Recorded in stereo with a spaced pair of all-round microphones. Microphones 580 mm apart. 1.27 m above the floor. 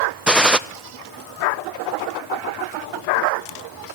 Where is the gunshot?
Centre (ahead or behind), 0.8 m.